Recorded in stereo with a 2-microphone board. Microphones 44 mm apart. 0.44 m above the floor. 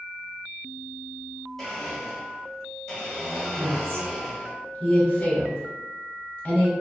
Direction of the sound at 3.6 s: 25° left (ahead or behind).